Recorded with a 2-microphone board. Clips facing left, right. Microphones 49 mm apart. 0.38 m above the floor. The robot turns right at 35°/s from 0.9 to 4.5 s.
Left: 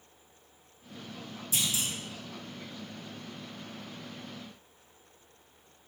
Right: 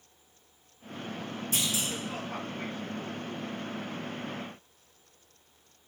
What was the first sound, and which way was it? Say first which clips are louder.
A clunk: right 1 dB; 50° right (ahead or behind).